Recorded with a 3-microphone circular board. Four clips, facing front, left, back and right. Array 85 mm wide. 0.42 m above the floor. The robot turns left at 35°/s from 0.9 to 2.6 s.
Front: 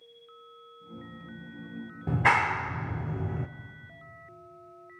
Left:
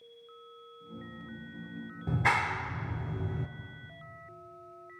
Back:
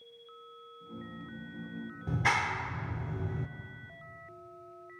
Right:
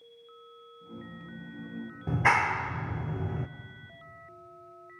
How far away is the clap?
About 0.6 m.